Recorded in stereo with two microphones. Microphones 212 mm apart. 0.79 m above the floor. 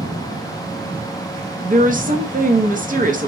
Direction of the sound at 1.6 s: 40° right (ahead or behind).